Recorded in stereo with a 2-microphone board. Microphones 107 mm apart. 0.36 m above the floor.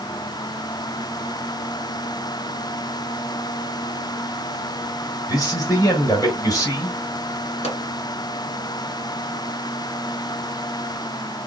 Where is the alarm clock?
I don't hear an alarm clock.